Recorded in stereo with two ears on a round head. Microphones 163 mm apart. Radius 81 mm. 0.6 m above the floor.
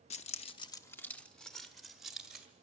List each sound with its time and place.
0.1 s keys jangling: 35° left (ahead or behind), 0.6 m; by 2.5 s 5° right (ahead or behind), 2 m